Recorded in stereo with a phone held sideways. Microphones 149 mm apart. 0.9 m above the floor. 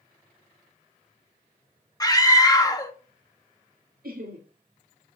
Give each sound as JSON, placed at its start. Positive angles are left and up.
{"t": 2.0, "sound": "a scream", "side_deg": 25, "distance_m": 1.4}
{"t": 4.0, "sound": "laughter", "side_deg": -75, "distance_m": 1.9}